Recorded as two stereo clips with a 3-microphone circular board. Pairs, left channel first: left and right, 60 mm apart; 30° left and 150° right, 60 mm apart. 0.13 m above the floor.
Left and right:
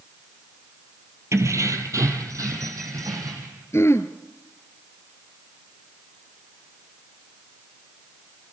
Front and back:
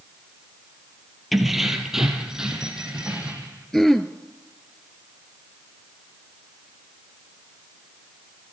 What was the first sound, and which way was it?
Keys jangling, 60° right.